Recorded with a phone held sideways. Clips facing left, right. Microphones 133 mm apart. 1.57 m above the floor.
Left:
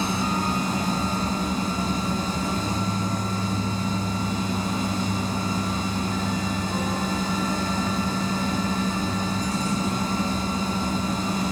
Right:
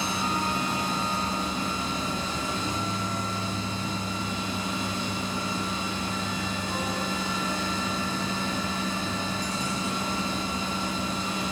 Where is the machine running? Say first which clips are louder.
Left 4 dB; 40° left (ahead or behind), 2.5 m.